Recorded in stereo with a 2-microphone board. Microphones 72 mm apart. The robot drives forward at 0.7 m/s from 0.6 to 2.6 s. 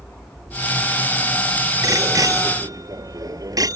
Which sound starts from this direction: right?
A bicycle bell, at 1.8 s.